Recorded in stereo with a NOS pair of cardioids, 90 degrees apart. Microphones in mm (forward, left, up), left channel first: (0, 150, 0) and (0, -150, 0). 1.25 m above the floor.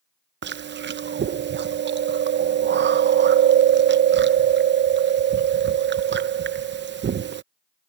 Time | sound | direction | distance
0.4 | chewing | 35° right | ?